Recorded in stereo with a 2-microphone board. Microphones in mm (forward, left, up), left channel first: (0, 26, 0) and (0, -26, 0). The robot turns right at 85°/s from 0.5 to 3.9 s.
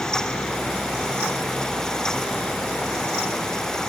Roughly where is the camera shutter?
No camera shutter in this recording.